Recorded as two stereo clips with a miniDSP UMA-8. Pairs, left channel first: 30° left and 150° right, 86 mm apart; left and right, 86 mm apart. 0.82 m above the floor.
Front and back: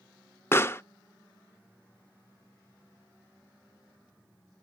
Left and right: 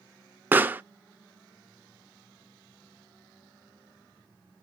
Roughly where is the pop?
Ahead right.